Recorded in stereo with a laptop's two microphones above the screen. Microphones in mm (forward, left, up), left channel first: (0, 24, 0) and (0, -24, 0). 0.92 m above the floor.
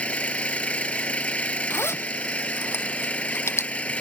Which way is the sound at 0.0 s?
30° left (ahead or behind).